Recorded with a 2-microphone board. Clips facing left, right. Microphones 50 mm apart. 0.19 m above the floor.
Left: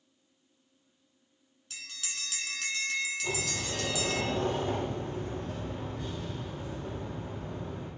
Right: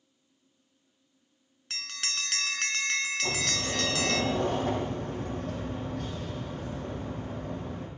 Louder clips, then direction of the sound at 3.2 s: Right 3 dB; 80° right.